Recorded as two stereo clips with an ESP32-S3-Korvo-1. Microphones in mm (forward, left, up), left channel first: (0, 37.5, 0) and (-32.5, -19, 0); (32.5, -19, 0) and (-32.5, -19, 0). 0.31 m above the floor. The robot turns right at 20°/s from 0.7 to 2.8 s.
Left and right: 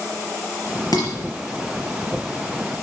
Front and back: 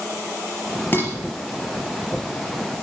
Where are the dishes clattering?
55° left, 4.5 m.